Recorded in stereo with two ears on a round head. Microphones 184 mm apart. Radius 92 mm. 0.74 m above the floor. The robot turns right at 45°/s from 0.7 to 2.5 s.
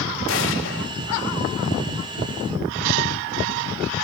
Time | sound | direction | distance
0.3 | an explosion | 65° left (ahead or behind) | 3 m